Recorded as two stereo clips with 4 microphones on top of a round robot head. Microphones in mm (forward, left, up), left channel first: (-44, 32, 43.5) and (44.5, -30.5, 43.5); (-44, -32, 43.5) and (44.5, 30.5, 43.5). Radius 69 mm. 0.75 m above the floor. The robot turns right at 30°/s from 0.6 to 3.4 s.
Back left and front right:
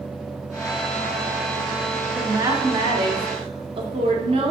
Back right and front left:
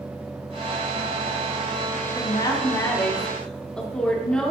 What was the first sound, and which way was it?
A woman speaking, 100° right.